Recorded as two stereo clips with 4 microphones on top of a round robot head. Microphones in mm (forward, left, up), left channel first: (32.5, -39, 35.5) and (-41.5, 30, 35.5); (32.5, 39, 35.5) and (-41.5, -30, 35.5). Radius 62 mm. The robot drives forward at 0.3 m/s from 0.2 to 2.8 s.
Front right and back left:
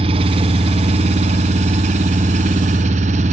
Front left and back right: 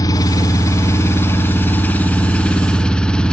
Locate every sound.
0.0 s an engine running: 100° left, 1.5 m; by 3.3 s 125° left, 1.8 m